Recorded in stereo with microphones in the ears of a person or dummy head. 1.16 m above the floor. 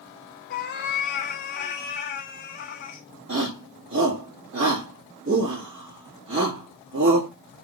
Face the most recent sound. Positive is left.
turn(degrees=-65)  # may be behind; listen again after turning